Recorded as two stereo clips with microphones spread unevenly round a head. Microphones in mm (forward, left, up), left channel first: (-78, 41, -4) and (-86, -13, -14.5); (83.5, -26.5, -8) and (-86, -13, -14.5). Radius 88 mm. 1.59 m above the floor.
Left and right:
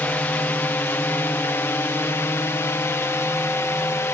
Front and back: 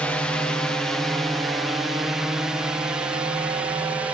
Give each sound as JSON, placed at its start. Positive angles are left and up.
{"t": 0.0, "sound": "a drone", "azimuth_deg": 70}